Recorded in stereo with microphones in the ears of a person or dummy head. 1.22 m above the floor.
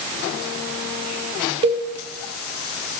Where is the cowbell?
25° right (ahead or behind), 0.7 m.